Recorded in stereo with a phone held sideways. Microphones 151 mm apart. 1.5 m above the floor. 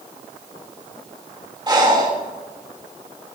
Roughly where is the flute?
I don't hear a flute.